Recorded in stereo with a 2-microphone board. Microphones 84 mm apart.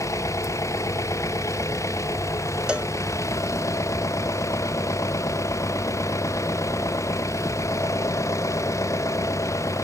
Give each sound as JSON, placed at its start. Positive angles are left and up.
{"t": 0.0, "sound": "an engine running", "side_deg": 40}
{"t": 2.7, "sound": "a cowbell", "side_deg": -15}